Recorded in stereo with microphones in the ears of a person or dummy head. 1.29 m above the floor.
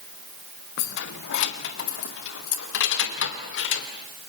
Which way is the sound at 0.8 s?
65° left (ahead or behind).